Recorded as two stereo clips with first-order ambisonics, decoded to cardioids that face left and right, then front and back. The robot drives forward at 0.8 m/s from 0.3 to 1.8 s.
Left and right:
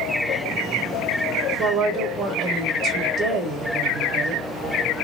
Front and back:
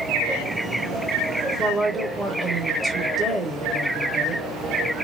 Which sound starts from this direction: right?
A woman speaking, at 1.6 s.